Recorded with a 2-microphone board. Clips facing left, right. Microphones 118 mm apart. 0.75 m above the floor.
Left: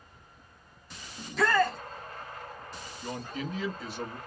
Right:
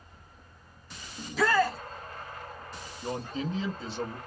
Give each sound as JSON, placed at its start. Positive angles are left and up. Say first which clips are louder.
{"t": 1.2, "sound": "a shout", "louder": "even", "side_deg": -5, "distance_m": 0.5}
{"t": 3.0, "sound": "a man speaking", "louder": "right 3 dB", "side_deg": -25, "distance_m": 0.8}